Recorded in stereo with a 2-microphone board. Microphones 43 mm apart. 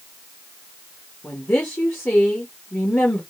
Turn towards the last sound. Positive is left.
turn(degrees=50)  # may be behind; listen again after turning